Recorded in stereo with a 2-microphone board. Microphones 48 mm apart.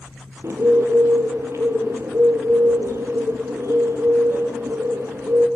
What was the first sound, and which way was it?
A bird, 65° right (ahead or behind).